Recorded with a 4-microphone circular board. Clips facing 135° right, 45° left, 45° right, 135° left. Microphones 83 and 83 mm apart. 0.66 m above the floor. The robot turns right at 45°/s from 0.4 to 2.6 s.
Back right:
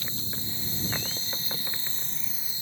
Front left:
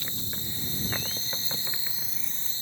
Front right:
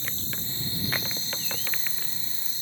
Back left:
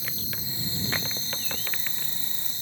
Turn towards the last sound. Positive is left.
turn(degrees=150)